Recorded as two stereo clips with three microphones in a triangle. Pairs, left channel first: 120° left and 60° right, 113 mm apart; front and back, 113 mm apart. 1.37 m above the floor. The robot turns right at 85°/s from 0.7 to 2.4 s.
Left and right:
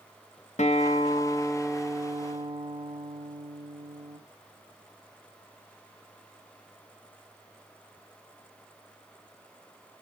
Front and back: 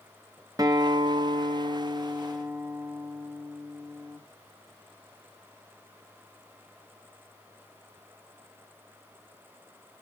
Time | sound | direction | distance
0.6 | a guitar | 120° left | 0.5 m